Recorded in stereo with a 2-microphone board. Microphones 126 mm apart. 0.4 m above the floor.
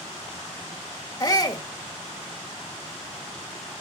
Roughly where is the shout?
Left.